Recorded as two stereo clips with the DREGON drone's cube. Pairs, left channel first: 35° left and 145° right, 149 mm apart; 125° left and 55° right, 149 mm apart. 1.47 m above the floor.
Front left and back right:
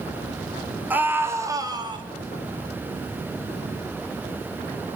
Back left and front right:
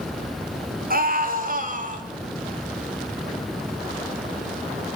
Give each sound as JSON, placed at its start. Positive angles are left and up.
{"t": 0.9, "sound": "a scream", "azimuth_deg": -70, "distance_m": 4.5}